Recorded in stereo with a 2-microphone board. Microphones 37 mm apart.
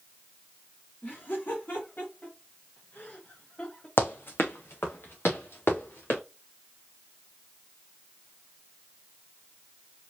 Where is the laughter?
50° left (ahead or behind), 2.5 m; by 3.9 s 25° left (ahead or behind), 1.6 m.